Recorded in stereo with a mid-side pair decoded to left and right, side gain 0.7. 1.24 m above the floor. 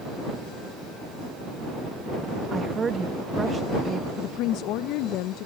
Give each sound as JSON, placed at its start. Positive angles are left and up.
{"t": 2.5, "sound": "a woman speaking", "azimuth_deg": -25}
{"t": 4.2, "sound": "a woman speaking", "azimuth_deg": 65}